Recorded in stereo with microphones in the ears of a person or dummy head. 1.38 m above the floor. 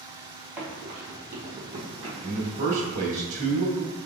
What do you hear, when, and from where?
0.6 s running footsteps: 5° right (ahead or behind), 1.7 m; by 2.6 s 35° right (ahead or behind), 2 m
2.2 s a man speaking: 45° right (ahead or behind), 1.7 m